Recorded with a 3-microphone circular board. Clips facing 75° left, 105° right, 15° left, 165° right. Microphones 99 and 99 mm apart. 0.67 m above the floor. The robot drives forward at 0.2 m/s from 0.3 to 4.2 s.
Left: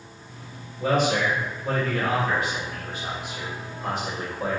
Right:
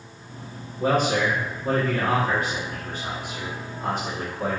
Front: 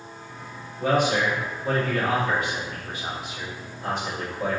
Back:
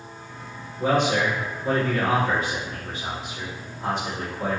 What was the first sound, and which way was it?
A man speaking, 110° right.